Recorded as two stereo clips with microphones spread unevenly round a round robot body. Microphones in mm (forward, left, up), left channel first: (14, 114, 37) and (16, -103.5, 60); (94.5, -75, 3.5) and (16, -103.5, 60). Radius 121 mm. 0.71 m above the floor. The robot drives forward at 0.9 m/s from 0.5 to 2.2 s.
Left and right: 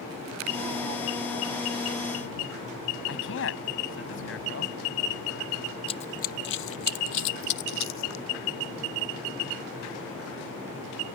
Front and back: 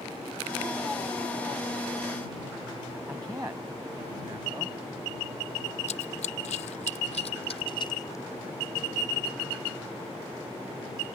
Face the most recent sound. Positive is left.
turn(degrees=110)